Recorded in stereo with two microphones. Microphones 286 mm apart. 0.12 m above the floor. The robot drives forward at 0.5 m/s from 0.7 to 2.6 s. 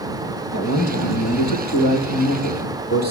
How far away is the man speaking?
About 3 m.